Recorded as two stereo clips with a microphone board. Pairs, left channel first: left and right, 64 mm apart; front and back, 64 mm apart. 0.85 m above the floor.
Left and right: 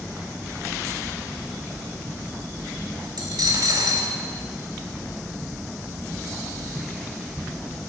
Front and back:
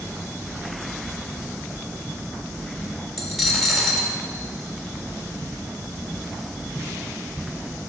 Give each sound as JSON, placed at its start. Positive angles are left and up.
{"t": 3.2, "sound": "a dropped coin", "azimuth_deg": -90, "distance_m": 1.1}